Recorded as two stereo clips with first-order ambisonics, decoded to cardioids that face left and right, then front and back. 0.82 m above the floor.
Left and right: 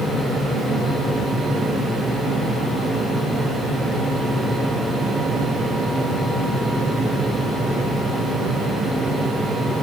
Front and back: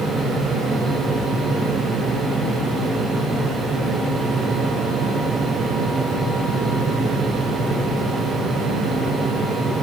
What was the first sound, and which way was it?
Only background noise.